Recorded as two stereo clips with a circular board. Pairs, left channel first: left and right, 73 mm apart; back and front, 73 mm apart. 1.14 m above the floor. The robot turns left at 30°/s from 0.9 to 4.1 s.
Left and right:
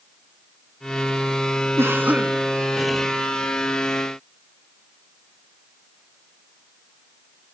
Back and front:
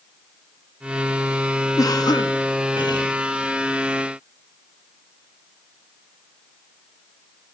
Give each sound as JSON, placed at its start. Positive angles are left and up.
{"t": 1.8, "sound": "a cough", "azimuth_deg": -145, "distance_m": 1.5}